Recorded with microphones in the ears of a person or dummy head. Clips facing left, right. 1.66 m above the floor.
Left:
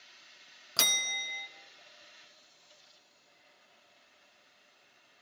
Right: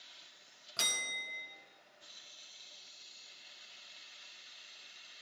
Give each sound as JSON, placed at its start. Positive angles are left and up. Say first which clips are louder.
{"t": 0.8, "sound": "a bell", "louder": "left 6 dB", "side_deg": 75, "distance_m": 0.5}